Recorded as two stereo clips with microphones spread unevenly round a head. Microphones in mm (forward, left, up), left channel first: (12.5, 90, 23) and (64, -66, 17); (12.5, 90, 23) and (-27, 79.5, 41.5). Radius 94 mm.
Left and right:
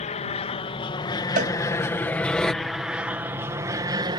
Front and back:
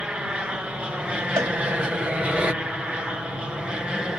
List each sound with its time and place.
0.0 s an aircraft: 125° left; by 4.2 s 65° right
1.4 s a cowbell: 120° right